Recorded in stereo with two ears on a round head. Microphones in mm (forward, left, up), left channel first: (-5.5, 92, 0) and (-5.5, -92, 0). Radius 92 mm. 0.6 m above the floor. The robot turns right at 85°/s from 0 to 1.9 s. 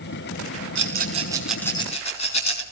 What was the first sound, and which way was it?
A rattle, 65° right (ahead or behind).